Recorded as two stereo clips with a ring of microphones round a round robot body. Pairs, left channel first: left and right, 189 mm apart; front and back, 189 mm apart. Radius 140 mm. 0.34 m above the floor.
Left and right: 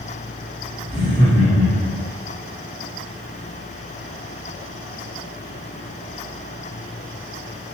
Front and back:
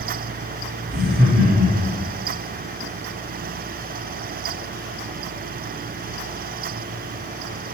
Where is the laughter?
160° left, 2.5 m; by 2.0 s 155° left, 3.5 m.